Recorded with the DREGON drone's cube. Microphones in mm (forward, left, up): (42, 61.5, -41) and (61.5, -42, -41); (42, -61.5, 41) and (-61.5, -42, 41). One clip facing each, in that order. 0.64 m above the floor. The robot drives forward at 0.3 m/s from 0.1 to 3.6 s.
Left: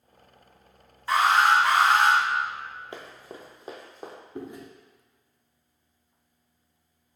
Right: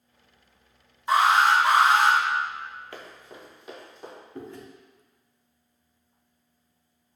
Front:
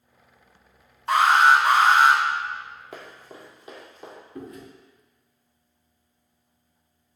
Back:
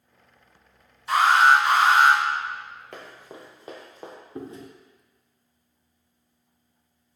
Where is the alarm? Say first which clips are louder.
Right 1 dB, even; 15° right, 1.0 m; by 2.2 s 25° right, 0.8 m.